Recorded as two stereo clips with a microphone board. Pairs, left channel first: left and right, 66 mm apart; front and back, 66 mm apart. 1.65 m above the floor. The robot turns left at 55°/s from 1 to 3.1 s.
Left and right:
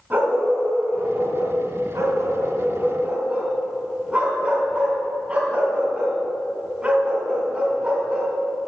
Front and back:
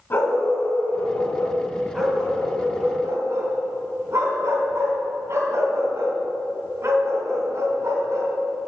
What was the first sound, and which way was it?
A dog barking, 35° right.